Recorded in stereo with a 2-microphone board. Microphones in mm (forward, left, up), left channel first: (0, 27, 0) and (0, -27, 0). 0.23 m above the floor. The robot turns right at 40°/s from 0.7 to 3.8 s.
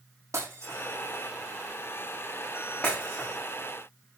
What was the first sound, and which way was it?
Breaking glass, 65° right (ahead or behind).